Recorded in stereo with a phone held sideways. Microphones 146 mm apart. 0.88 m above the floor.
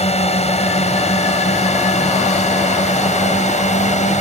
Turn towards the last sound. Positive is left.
turn(degrees=50)  # may be behind; listen again after turning